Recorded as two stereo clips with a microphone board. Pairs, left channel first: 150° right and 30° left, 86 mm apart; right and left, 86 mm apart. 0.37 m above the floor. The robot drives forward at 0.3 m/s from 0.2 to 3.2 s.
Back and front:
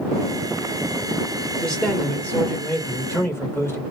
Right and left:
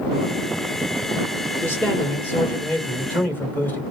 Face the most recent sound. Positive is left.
turn(degrees=-130)